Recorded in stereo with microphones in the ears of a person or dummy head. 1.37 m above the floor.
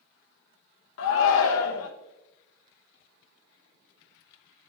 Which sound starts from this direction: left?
A shout, at 1.0 s.